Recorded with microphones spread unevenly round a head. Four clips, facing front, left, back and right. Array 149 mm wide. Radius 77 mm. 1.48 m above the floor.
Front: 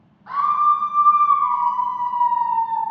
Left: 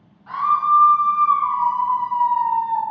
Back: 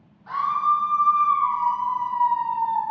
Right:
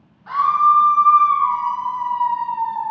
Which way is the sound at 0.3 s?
15° right.